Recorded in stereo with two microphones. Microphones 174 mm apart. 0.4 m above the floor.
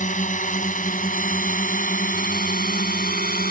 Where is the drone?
45° left (ahead or behind); by 3.5 s 55° left (ahead or behind).